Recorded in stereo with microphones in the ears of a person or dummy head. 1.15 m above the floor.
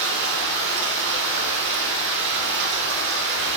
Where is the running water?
65° right (ahead or behind), 2.5 m.